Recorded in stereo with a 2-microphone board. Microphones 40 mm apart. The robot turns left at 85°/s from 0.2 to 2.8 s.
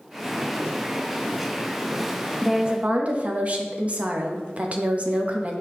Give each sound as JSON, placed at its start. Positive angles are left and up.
{"t": 2.4, "sound": "a woman speaking", "azimuth_deg": -5, "distance_m": 0.6}